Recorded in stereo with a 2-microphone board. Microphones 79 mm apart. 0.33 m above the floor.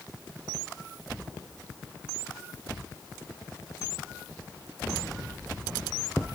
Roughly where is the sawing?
No sawing in this recording.